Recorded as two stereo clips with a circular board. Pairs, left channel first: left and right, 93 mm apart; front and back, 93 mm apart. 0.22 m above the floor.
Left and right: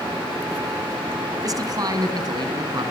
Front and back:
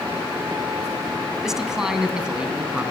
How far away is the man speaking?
About 2 m.